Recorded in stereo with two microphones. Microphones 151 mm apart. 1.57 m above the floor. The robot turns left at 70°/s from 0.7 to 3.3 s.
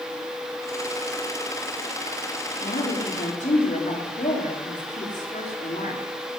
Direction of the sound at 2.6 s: 105° left.